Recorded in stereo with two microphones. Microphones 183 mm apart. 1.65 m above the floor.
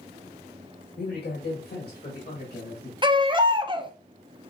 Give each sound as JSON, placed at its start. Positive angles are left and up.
{"t": 1.0, "sound": "a man speaking", "side_deg": 75, "distance_m": 1.5}
{"t": 3.0, "sound": "a baby crying", "side_deg": -25, "distance_m": 0.5}